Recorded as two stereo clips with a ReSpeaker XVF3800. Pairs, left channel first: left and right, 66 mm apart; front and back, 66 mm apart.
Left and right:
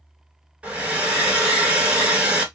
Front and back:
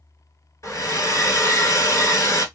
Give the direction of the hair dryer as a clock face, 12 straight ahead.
1 o'clock.